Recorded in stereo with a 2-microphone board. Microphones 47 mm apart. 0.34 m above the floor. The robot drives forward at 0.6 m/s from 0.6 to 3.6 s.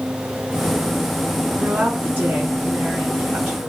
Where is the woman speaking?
40° right (ahead or behind), 3.5 m; by 3.7 s 30° right (ahead or behind), 4.5 m.